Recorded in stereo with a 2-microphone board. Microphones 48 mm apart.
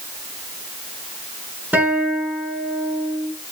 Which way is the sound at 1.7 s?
35° right (ahead or behind).